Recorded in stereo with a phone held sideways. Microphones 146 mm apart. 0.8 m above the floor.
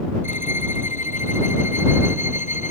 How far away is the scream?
I don't hear a scream.